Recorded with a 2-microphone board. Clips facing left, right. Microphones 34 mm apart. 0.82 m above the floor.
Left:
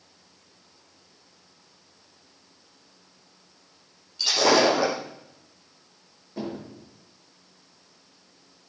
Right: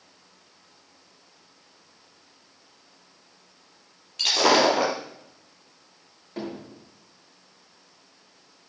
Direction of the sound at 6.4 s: 60° right (ahead or behind).